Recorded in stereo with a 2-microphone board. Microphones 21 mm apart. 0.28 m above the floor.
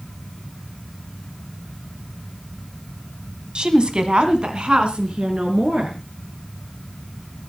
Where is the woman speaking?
55° right (ahead or behind), 2 m; by 6.0 s 60° right (ahead or behind), 5 m.